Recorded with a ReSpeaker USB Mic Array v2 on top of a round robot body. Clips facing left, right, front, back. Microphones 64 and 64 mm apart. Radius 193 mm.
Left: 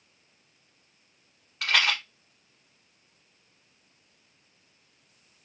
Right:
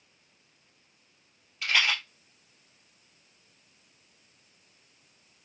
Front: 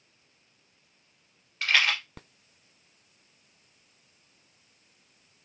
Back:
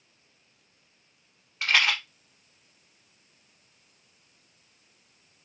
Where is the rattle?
110° left, 1.1 m.